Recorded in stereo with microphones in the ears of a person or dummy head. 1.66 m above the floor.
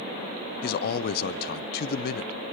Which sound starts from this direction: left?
A man speaking, at 0.6 s.